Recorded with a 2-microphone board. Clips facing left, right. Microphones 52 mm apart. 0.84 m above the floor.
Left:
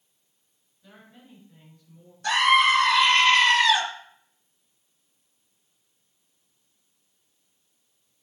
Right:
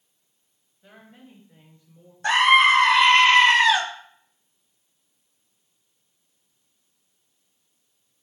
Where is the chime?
No chime in this recording.